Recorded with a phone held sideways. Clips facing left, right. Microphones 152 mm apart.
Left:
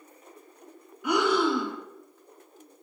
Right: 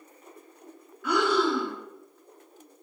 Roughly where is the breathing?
Centre.